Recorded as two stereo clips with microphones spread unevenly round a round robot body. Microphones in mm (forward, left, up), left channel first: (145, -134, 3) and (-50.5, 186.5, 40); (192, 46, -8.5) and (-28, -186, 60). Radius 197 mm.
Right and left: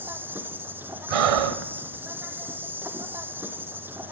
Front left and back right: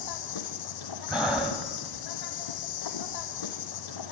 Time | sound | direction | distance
0.0 | an insect | 35° left | 2.5 m
1.1 | breathing | 135° left | 1.3 m